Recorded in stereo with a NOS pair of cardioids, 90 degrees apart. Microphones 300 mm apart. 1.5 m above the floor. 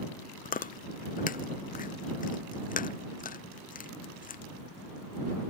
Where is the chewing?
30° left.